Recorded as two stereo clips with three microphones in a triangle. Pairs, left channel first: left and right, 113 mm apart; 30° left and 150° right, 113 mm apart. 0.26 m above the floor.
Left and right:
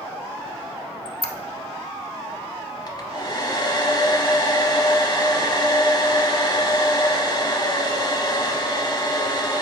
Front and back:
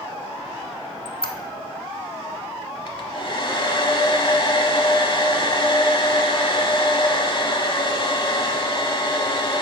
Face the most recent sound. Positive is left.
turn(degrees=55)